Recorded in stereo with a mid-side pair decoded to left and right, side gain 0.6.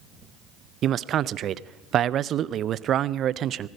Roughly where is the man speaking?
Ahead right.